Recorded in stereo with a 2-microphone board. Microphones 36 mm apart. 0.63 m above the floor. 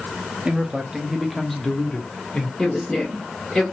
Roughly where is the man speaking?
Right.